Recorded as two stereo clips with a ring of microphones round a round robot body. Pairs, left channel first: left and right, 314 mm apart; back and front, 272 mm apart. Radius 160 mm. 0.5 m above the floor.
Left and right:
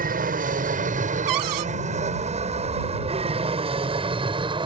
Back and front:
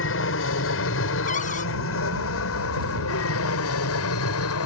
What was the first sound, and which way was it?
An aircraft, 145° right.